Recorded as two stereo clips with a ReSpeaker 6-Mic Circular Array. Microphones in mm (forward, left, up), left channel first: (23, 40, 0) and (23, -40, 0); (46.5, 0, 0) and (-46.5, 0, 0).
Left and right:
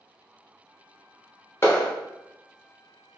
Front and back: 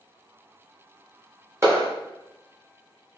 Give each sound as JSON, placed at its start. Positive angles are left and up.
{"t": 1.6, "sound": "a clap", "azimuth_deg": 135, "distance_m": 0.8}